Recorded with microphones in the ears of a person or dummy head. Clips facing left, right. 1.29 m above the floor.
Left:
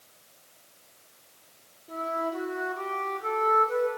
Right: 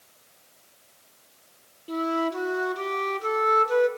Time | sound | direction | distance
1.9 | a flute | 50° right (ahead or behind) | 0.7 m